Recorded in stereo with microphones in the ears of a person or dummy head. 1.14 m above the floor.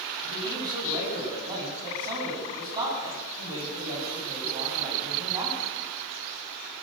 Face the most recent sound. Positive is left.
turn(degrees=-25)  # may be behind; listen again after turning